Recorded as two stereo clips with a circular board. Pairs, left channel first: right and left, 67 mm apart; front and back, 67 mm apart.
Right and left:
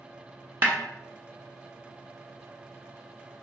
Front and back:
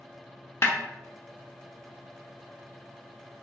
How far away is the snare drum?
About 0.6 m.